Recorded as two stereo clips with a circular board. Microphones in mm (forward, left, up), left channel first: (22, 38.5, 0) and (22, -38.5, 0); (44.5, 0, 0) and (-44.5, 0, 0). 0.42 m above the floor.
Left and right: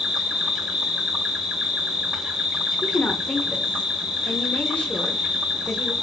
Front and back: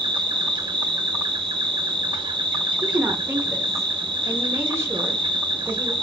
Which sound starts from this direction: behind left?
A woman speaking, at 2.8 s.